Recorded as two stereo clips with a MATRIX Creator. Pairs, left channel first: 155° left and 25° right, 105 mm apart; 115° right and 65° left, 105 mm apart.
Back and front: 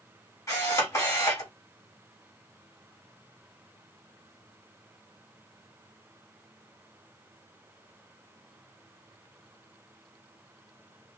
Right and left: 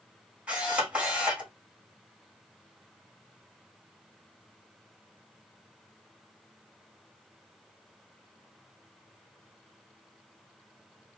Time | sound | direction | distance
0.5 | a camera shutter | 135° left | 1.6 m